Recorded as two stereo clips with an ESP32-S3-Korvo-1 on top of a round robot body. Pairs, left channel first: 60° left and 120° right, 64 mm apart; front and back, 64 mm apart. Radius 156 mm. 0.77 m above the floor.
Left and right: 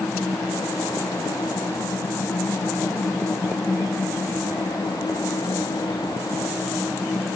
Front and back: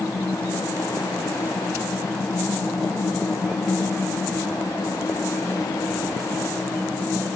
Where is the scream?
No scream in this recording.